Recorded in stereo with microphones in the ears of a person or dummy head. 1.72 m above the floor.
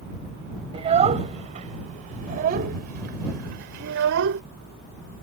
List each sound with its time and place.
0.7 s a child speaking: 35° right (ahead or behind); by 4.4 s 75° right (ahead or behind)